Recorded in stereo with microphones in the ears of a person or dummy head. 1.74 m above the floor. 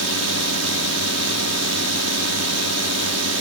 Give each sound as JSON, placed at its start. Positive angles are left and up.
{"t": 0.0, "sound": "a drone", "side_deg": -80}